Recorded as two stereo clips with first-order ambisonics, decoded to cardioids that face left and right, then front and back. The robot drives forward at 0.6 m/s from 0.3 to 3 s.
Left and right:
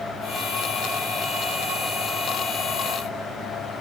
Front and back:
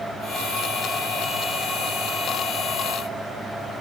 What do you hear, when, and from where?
Only background noise.